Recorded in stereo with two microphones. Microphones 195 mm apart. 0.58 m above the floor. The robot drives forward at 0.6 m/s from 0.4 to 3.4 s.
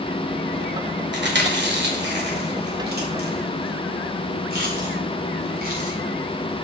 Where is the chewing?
65° right (ahead or behind), 2.0 m; by 5.9 s 50° right (ahead or behind), 2.5 m.